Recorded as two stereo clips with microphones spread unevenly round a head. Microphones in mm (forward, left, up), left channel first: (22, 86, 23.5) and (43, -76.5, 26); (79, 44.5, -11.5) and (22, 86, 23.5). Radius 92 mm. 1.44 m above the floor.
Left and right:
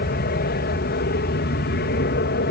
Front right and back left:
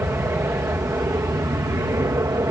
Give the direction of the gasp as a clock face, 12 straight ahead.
No gasp in this recording.